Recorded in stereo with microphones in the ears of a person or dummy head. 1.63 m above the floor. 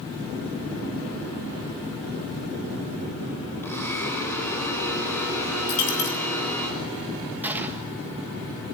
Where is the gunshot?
10° right (ahead or behind), 1.8 m.